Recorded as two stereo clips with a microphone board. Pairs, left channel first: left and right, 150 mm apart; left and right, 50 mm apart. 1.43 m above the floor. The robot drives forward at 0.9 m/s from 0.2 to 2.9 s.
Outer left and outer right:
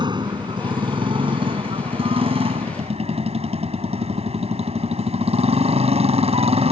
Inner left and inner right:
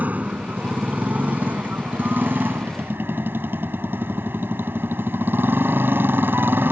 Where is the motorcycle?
30° right (ahead or behind); by 6.7 s 45° right (ahead or behind).